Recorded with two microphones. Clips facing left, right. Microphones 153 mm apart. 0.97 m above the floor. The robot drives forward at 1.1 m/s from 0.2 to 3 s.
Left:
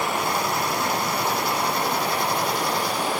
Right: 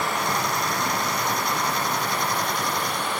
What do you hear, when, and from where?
0.0 s running water: 25° left (ahead or behind), 9 m; by 3.2 s 35° left (ahead or behind), 6.5 m